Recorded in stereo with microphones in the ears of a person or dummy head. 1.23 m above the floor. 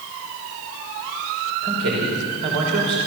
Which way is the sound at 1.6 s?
80° right.